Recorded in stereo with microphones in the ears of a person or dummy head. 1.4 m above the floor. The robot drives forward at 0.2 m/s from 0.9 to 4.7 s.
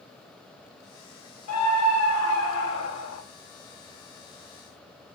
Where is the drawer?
No drawer in this recording.